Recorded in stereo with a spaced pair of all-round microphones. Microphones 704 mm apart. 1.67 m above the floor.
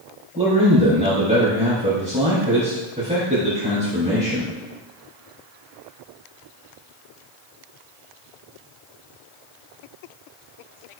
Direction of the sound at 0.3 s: 10° right (ahead or behind).